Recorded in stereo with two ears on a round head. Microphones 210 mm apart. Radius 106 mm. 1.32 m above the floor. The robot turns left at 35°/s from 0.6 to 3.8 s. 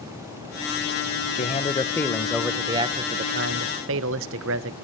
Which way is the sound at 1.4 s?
30° left.